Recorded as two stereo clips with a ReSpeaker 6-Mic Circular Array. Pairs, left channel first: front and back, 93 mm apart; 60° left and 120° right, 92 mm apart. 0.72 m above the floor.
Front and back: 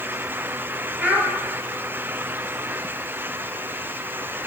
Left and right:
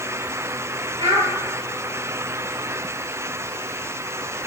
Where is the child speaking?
110° right, 7.5 m.